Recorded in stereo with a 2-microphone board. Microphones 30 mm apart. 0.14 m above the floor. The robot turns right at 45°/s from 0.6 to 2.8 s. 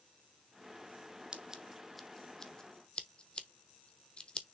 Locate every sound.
1.3 s scissors: 25° right (ahead or behind), 1.0 m; by 4.5 s 40° left (ahead or behind), 1.0 m